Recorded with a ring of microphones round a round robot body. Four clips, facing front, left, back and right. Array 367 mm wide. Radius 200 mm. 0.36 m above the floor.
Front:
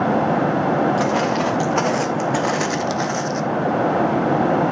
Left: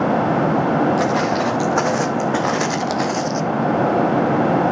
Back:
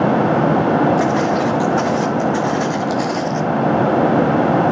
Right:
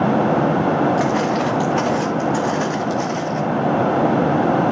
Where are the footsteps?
35° left, 2.5 m; by 3.4 s 80° left, 1.3 m.